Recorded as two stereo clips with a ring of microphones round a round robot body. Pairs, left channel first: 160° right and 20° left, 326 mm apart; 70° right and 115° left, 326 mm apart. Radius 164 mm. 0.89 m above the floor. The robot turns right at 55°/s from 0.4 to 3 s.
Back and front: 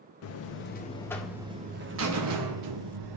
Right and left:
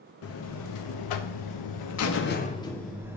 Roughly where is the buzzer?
Behind right.